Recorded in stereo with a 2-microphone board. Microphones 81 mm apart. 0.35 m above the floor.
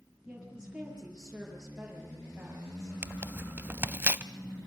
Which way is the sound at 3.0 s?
25° right (ahead or behind).